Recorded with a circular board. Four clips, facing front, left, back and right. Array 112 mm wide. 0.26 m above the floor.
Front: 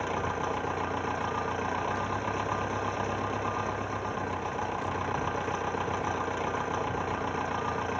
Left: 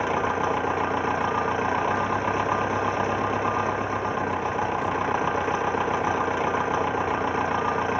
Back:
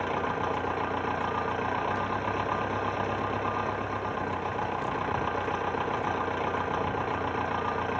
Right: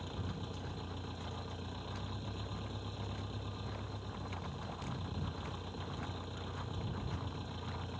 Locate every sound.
0.0 s an engine running: 100° left